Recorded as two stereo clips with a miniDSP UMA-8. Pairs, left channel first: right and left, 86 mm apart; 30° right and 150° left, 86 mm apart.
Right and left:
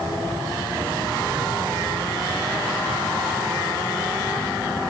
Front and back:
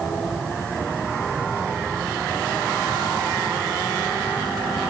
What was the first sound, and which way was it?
Only background noise.